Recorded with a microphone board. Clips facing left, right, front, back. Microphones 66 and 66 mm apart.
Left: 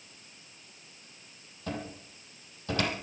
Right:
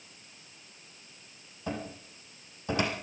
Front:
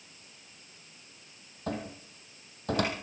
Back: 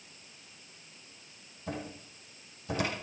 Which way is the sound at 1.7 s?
20° right.